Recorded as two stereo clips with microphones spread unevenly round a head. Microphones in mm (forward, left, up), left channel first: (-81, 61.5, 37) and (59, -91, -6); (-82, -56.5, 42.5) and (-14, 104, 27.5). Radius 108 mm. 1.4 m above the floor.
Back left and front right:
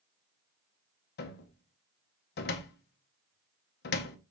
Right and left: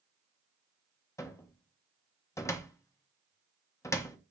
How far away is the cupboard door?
About 0.7 m.